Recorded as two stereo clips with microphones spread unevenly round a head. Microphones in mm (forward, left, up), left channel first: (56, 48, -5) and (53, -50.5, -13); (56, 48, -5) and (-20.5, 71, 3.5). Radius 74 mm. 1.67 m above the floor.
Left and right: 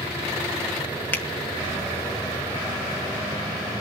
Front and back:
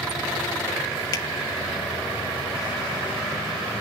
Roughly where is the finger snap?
Ahead.